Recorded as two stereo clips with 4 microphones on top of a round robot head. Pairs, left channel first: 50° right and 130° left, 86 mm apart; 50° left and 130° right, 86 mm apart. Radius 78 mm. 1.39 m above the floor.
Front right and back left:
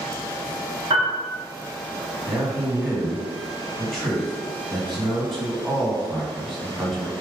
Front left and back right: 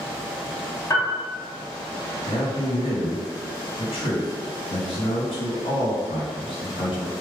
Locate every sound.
0.9 s a piano: 100° left, 1.4 m
2.3 s a man speaking: 45° left, 2.0 m